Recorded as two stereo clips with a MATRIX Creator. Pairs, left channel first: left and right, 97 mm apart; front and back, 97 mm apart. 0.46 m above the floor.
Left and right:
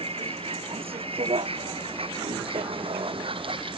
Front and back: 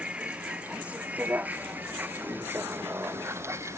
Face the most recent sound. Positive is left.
turn(degrees=-120)